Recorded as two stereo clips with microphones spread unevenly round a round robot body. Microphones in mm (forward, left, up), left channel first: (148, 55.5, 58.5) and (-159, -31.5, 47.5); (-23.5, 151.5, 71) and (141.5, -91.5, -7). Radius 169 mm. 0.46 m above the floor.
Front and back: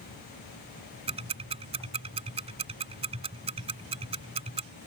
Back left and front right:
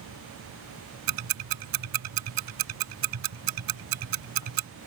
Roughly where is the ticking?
Right.